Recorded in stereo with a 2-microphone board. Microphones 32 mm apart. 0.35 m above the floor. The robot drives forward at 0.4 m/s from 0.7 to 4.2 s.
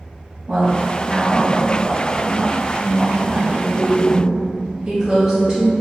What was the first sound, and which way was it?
A woman speaking, 25° right (ahead or behind).